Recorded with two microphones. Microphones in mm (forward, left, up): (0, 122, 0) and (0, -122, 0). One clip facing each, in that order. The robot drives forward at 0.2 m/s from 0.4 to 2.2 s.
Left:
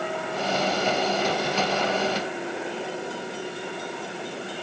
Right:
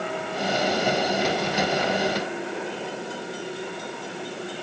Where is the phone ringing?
No phone ringing in this recording.